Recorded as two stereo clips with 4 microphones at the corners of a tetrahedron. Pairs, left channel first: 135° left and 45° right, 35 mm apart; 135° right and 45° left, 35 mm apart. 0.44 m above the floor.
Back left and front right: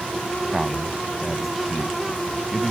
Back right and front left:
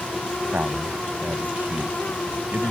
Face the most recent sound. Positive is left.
turn(degrees=40)